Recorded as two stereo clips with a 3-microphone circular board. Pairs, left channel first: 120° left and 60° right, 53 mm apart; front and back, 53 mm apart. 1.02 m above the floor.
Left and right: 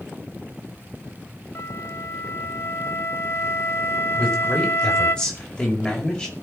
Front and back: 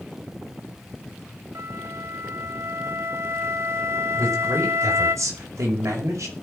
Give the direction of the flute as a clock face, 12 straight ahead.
7 o'clock.